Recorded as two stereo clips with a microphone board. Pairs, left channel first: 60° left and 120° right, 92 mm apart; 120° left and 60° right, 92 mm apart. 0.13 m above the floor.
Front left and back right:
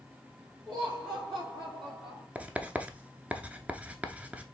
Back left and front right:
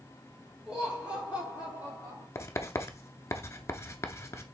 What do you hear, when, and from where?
0.7 s laughter: 140° right, 2 m; by 2.2 s 110° right, 2.5 m
2.4 s writing: 170° left, 0.6 m